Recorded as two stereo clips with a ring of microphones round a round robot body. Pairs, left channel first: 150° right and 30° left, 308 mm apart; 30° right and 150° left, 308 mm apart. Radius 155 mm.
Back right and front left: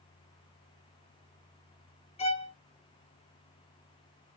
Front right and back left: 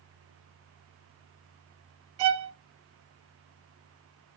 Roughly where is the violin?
Behind left.